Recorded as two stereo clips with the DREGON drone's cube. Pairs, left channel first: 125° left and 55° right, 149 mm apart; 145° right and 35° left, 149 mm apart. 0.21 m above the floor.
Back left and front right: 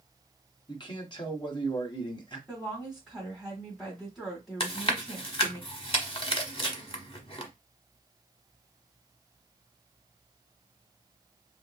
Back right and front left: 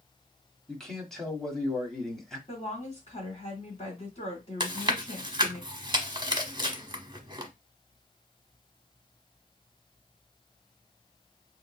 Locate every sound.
0.7 s a man speaking: 130° left, 1.3 m
2.5 s a woman speaking: 145° right, 1.8 m
4.6 s chewing: 85° left, 0.9 m